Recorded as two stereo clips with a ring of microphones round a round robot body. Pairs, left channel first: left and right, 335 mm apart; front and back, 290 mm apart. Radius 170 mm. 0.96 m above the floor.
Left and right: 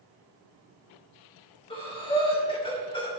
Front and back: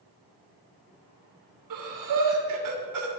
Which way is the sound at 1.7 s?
165° left.